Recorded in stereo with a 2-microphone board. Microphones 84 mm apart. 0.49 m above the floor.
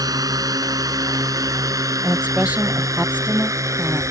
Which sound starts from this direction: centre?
A woman speaking, at 2.0 s.